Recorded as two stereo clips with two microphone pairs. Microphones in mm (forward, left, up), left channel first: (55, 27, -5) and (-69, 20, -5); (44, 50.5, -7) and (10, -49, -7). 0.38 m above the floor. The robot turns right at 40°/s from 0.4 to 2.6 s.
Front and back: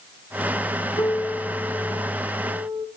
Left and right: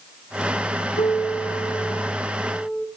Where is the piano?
65° left, 2.5 m; by 2.9 s 130° left, 2.5 m.